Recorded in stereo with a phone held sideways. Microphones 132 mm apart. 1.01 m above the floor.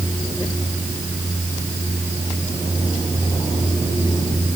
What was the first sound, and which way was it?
Only background noise.